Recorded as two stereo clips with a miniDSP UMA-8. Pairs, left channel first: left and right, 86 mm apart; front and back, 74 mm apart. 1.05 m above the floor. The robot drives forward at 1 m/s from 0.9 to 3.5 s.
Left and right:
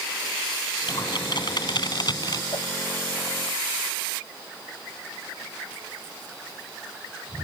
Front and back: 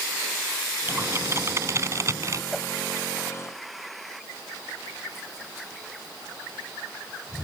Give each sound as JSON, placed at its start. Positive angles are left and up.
{"t": 0.9, "sound": "typing on a keyboard", "azimuth_deg": 120}
{"t": 2.5, "sound": "a whoosh", "azimuth_deg": 85}